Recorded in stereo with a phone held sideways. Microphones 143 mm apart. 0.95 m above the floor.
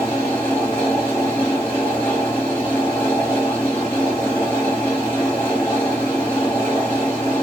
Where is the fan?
20° left (ahead or behind), 1.9 m.